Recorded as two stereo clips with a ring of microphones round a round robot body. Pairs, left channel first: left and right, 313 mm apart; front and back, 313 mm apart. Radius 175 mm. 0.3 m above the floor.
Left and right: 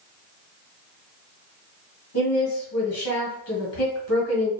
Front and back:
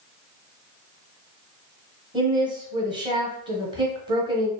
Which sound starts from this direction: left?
A woman speaking, at 2.1 s.